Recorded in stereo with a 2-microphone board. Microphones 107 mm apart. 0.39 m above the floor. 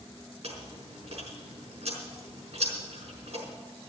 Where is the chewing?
75° right (ahead or behind), 5 m.